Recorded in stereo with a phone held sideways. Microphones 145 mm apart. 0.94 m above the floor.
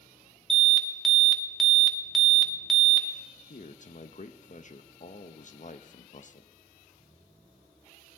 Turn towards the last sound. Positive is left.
turn(degrees=55)  # may be behind; listen again after turning